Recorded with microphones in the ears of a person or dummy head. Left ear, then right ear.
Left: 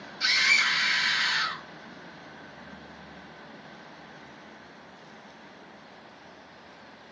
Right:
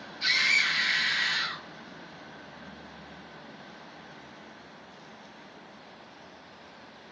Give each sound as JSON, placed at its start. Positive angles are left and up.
{"t": 0.2, "sound": "a scream", "side_deg": 45, "distance_m": 1.3}